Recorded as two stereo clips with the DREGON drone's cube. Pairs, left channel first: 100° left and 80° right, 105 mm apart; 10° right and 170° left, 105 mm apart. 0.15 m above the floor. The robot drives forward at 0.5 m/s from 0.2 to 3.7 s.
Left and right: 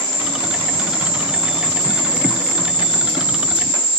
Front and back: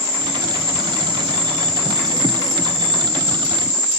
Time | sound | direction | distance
0.0 | an insect | 25° left | 7.5 m